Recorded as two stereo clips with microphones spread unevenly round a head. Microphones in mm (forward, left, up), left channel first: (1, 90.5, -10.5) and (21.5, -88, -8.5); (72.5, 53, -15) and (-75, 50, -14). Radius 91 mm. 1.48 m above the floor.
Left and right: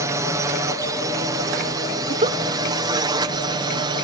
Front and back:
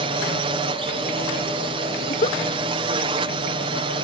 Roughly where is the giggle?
Ahead right.